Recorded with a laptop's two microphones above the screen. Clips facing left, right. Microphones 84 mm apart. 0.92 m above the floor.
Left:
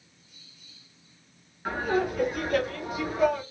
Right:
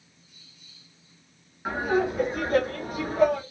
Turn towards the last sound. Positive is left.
turn(degrees=-55)  # may be behind; listen again after turning